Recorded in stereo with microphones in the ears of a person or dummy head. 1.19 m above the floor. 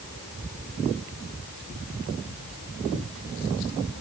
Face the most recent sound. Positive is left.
No sound to turn to.